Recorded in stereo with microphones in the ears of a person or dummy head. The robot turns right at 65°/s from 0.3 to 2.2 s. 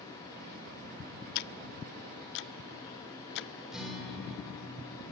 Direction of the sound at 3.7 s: Centre (ahead or behind).